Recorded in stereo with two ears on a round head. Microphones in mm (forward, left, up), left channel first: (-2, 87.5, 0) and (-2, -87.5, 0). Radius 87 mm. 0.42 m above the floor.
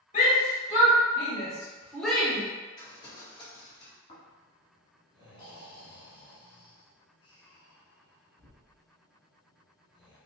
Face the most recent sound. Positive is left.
turn(degrees=30)  # may be behind; listen again after turning